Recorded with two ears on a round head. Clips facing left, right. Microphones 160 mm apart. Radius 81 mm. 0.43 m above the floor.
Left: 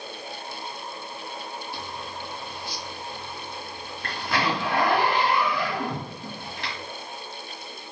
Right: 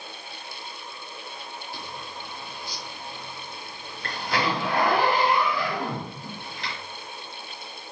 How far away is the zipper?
About 2 m.